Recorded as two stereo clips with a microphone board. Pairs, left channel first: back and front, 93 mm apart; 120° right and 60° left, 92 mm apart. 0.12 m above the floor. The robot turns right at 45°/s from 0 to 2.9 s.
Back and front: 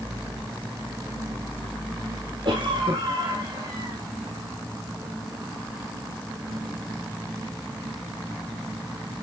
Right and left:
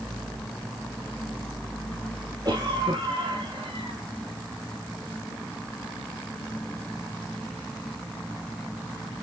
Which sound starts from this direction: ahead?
A cough, at 2.5 s.